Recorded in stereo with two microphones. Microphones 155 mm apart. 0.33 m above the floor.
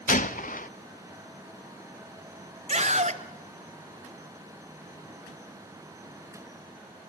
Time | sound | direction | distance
0.1 | a gunshot | 60° left (ahead or behind) | 0.7 m
2.7 | a scream | 50° right (ahead or behind) | 1.4 m